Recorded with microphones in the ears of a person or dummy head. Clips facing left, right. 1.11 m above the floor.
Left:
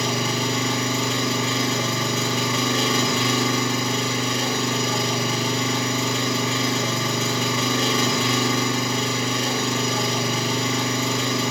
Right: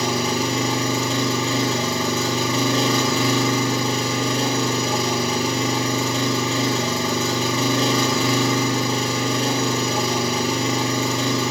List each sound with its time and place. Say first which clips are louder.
0.0 s an engine running: right 3 dB; 35° right (ahead or behind), 1.4 m